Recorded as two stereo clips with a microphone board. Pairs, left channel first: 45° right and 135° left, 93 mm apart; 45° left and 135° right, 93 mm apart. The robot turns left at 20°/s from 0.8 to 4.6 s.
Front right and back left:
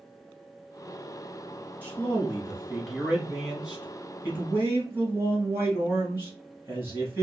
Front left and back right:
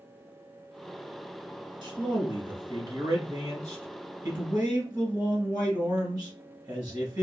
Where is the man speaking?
110° right, 1.6 m; by 7.2 s 165° right, 1.6 m.